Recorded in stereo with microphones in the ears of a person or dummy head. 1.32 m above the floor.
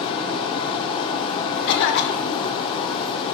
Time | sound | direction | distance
0.0 | running water | 30° left (ahead or behind) | 1.2 m
1.7 | a cough | 65° left (ahead or behind) | 2.5 m